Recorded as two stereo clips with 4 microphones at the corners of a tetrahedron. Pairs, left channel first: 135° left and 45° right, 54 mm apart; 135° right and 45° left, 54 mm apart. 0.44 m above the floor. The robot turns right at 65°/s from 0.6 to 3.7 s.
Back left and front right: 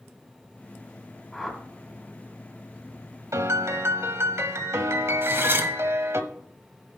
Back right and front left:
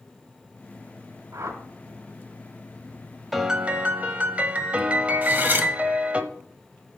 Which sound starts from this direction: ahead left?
A whoosh, at 1.3 s.